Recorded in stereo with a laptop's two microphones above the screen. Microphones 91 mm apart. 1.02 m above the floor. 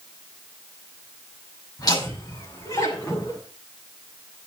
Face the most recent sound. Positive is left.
turn(degrees=40)  # may be behind; listen again after turning